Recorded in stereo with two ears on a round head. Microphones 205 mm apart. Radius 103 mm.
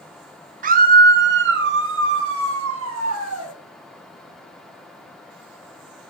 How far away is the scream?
About 1.3 m.